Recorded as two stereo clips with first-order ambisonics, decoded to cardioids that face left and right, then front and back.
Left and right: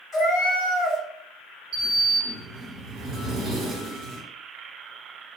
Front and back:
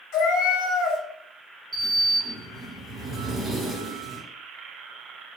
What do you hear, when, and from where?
0.1 s a cat meowing: 20° left, 1.9 m
1.7 s a sliding door: 110° right, 0.8 m